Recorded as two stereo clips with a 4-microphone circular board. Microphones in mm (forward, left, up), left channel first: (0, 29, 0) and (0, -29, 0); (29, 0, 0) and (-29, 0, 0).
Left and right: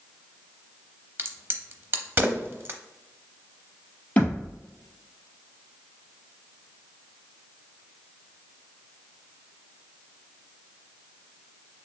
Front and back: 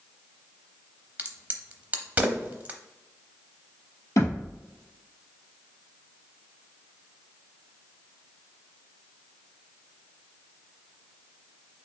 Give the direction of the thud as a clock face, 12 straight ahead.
11 o'clock.